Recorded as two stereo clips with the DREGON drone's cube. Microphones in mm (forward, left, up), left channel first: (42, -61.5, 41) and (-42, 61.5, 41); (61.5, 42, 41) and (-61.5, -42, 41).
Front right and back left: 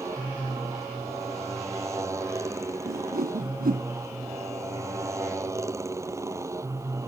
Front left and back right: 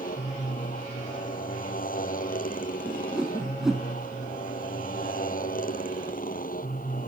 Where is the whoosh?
130° left.